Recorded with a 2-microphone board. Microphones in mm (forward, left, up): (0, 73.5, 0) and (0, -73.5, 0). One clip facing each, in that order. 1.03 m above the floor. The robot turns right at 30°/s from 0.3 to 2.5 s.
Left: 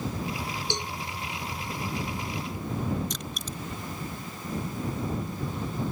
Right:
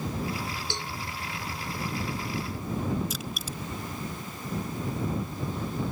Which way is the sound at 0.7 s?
20° left (ahead or behind).